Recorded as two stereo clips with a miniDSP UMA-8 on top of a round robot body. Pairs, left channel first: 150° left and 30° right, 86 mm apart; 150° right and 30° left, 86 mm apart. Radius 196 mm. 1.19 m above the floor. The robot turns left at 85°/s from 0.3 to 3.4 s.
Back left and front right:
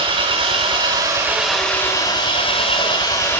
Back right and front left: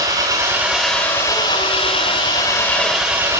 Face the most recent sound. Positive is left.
turn(degrees=80)